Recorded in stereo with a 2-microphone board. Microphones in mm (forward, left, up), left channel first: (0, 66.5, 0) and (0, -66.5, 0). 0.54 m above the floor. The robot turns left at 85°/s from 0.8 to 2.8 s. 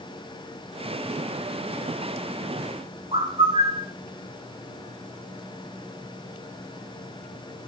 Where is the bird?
45° right (ahead or behind), 2.0 m.